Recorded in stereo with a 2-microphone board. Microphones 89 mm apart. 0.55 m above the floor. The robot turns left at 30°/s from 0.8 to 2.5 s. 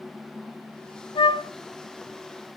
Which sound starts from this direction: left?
A flute, at 1.1 s.